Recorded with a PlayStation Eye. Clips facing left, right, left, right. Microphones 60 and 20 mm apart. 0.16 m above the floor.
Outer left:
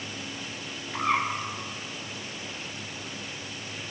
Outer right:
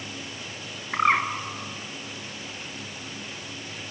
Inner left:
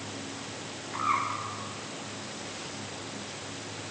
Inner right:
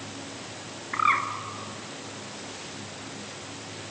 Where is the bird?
60° right (ahead or behind), 1.6 m.